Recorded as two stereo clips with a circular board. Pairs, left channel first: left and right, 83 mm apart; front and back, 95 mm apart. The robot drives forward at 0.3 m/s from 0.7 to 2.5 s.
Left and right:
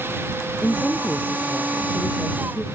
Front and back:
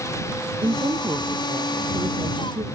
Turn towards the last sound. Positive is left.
turn(degrees=170)